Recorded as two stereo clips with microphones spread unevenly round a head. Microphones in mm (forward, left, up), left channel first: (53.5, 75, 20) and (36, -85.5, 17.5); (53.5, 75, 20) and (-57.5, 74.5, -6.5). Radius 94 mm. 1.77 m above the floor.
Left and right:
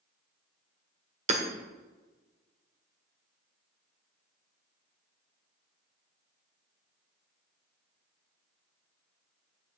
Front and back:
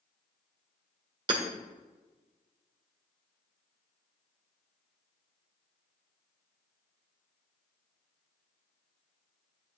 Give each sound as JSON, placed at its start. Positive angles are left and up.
{"t": 1.3, "sound": "hammering", "azimuth_deg": -125, "distance_m": 1.7}